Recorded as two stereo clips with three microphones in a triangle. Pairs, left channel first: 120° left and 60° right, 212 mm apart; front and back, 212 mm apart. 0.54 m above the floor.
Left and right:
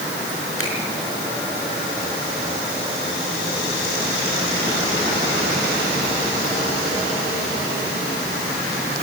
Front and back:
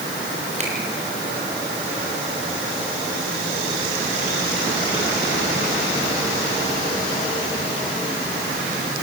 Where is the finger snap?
120° left, 5.5 m.